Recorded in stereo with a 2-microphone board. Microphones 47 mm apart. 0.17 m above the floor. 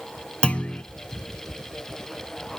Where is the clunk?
25° left (ahead or behind), 1.1 m.